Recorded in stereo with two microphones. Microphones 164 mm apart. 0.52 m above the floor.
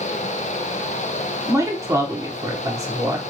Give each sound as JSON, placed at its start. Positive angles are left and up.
{"t": 1.5, "sound": "a man speaking", "side_deg": -20, "distance_m": 0.9}